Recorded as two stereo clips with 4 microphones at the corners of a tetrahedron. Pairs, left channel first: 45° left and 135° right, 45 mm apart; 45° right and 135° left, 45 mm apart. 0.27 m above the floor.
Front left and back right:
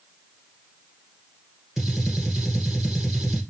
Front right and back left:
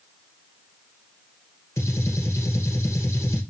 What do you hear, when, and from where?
1.8 s a gunshot: 55° right, 1.5 m